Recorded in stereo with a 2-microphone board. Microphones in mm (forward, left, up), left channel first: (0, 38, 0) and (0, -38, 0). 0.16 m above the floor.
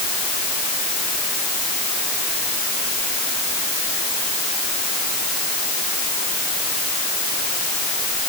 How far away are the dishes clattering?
I don't hear dishes clattering.